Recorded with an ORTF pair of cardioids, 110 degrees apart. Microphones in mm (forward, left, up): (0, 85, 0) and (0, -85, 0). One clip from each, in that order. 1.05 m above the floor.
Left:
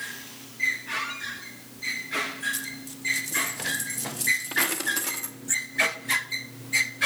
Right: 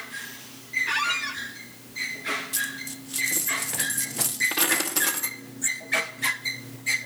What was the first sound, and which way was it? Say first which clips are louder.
A squeak: right 6 dB; 55° right.